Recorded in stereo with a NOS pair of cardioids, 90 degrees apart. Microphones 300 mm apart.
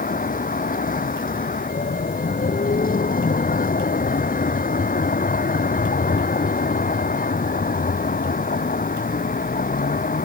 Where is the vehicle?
25° left.